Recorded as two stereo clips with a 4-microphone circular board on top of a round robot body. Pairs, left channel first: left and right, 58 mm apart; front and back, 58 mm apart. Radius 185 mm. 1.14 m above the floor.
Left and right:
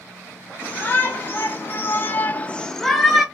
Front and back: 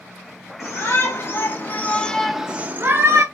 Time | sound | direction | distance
0.6 | a shout | 40° left | 1.5 m